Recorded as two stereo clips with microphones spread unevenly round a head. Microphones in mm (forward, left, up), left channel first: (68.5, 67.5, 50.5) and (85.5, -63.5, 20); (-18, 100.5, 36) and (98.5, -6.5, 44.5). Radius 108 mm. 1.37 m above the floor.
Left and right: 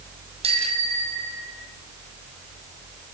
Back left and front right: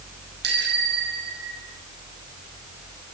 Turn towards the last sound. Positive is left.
turn(degrees=-50)